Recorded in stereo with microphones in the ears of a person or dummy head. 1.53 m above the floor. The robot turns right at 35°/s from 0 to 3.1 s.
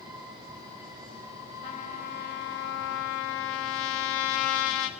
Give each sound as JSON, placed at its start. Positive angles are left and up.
{"t": 1.6, "sound": "a trumpet", "azimuth_deg": 45, "distance_m": 2.0}